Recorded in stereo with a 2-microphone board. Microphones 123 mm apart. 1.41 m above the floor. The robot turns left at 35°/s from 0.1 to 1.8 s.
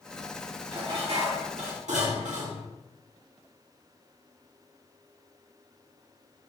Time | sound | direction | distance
0.7 | dishes clattering | 40° right | 1.9 m